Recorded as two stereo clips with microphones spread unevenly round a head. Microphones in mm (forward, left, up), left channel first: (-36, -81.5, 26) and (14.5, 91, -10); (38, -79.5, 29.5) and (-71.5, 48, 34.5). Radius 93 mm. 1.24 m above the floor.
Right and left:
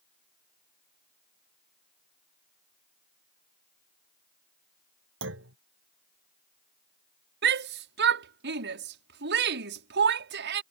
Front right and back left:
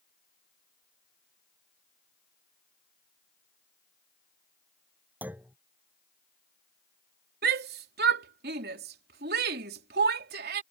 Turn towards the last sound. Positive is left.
turn(degrees=95)